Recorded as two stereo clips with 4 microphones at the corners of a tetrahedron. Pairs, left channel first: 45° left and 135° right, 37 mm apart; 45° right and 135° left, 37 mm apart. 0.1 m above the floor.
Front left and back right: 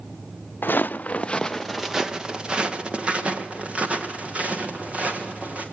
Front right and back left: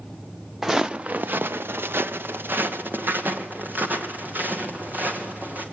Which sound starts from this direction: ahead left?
Footsteps, at 0.6 s.